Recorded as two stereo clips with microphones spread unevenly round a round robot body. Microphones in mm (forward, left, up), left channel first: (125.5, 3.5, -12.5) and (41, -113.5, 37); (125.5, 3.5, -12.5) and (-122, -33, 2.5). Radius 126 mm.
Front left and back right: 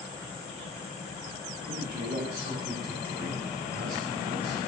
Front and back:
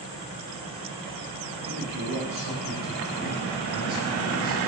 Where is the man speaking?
125° right, 8 m; by 4.7 s 115° right, 5.5 m.